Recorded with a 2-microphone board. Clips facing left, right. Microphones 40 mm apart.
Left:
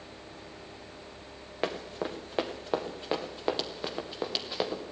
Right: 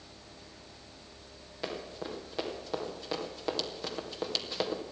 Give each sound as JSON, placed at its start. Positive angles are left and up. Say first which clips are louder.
{"t": 1.6, "sound": "running footsteps", "louder": "left 5 dB", "side_deg": 45, "distance_m": 3.0}